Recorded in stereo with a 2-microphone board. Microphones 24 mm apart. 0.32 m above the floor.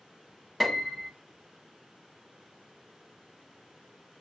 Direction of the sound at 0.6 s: 5° right (ahead or behind).